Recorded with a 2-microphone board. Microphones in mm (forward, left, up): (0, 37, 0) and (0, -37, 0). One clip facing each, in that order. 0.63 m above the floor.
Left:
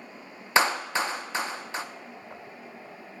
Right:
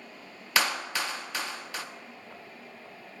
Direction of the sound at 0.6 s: 25° left (ahead or behind).